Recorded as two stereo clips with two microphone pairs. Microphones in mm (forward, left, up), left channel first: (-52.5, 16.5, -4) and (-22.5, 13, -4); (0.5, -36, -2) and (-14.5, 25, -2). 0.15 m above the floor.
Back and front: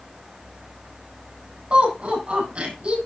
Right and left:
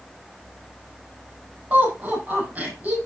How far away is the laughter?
About 7 m.